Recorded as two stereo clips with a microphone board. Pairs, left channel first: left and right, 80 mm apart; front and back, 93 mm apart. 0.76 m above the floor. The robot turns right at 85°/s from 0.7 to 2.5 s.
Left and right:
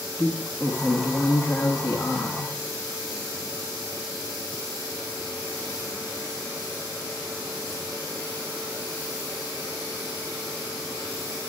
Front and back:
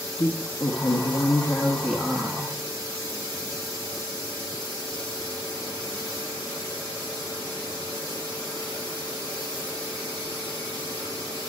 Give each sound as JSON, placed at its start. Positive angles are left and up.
{"t": 0.2, "sound": "a woman speaking", "azimuth_deg": -15, "distance_m": 1.1}